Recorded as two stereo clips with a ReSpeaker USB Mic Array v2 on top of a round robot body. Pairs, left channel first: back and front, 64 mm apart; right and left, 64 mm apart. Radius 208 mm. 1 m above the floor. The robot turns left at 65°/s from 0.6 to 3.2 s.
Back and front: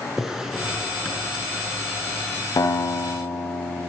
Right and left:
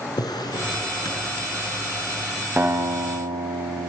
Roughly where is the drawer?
Right.